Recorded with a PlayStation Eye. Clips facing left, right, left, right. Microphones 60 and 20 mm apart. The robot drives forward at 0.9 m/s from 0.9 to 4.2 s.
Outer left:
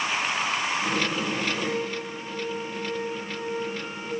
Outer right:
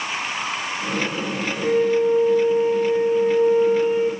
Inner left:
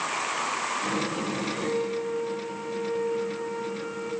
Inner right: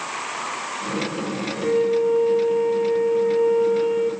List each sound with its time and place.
1.6 s a flute: 65° right (ahead or behind), 2.5 m; by 4.1 s 60° right (ahead or behind), 2.5 m